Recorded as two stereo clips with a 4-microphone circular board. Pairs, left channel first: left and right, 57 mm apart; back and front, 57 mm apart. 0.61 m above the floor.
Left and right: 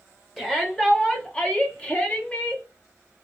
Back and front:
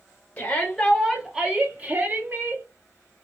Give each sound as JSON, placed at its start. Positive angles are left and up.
{"t": 0.4, "sound": "a shout", "azimuth_deg": 165, "distance_m": 1.0}